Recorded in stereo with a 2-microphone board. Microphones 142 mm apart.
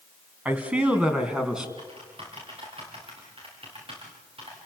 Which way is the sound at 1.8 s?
40° right (ahead or behind).